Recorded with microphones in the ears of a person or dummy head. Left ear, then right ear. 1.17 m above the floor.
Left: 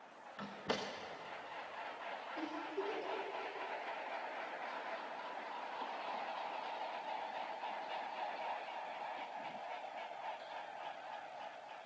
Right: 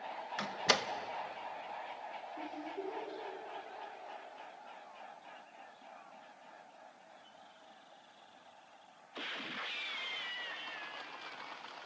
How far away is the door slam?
About 1.0 m.